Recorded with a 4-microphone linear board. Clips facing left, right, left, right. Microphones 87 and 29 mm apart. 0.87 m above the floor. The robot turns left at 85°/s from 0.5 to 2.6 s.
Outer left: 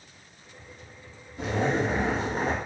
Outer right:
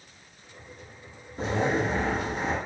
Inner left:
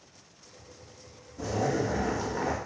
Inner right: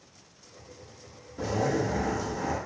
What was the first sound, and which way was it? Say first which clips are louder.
A zipper: even, inner right 1 dB; 140° right.